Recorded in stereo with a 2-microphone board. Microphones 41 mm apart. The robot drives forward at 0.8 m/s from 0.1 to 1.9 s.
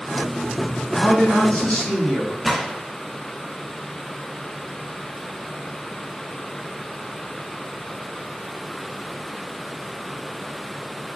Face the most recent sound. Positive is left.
turn(degrees=5)  # may be behind; listen again after turning